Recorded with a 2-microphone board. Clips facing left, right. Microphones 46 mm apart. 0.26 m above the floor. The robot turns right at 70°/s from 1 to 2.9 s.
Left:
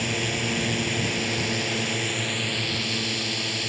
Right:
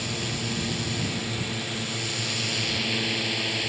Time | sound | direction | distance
0.0 | a drone | 55° left | ?